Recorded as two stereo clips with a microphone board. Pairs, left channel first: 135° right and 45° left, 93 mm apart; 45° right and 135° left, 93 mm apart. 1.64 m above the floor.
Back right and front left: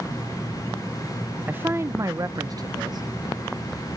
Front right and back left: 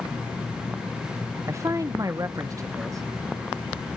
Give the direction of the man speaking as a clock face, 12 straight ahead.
8 o'clock.